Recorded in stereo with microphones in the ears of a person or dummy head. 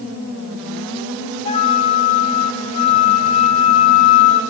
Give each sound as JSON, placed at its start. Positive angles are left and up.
{"t": 1.4, "sound": "a flute", "side_deg": 35, "distance_m": 0.6}